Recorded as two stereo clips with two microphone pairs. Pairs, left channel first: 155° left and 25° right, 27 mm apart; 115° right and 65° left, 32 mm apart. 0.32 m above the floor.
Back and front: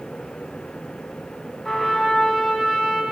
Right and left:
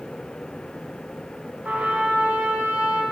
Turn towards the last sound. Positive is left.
turn(degrees=75)